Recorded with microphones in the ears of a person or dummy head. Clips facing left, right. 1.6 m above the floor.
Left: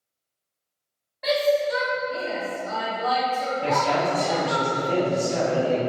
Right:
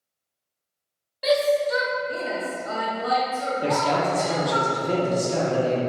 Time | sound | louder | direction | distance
1.2 | a shout | right 1 dB | 35° right (ahead or behind) | 1.0 m
3.6 | a man speaking | right 1 dB | 50° right (ahead or behind) | 0.9 m